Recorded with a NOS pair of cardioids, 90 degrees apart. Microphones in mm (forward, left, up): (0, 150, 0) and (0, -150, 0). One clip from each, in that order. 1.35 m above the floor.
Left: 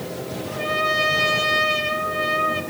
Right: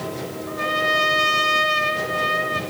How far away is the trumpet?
About 1.1 m.